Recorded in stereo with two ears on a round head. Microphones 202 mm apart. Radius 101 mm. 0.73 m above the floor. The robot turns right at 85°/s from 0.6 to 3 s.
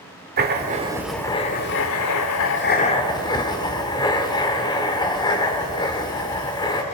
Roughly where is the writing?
Ahead right.